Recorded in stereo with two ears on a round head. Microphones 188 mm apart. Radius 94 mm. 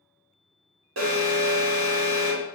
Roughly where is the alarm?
Right.